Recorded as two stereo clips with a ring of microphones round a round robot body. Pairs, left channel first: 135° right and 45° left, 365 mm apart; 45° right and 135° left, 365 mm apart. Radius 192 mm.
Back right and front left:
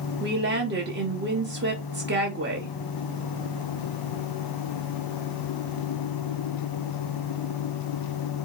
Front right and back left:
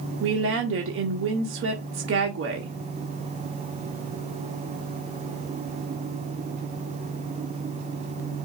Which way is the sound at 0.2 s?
95° left.